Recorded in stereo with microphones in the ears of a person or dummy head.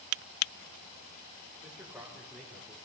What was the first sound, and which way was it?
A man speaking, 10° right (ahead or behind).